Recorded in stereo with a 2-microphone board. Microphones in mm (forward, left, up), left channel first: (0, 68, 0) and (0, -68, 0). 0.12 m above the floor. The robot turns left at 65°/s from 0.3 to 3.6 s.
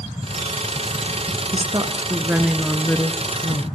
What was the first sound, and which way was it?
A woman speaking, 105° right.